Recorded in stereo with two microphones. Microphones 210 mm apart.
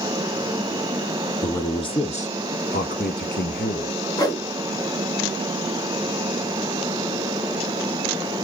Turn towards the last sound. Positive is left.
turn(degrees=20)  # may be behind; listen again after turning